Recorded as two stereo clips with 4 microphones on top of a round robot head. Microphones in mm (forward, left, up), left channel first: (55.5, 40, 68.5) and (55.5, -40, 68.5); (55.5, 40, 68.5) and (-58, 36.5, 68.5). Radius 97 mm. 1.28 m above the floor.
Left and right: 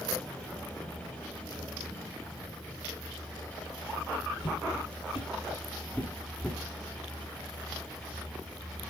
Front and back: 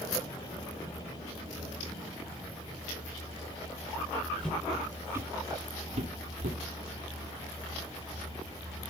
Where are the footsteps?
80° left, 1.8 m; by 6.6 s straight behind, 2.5 m.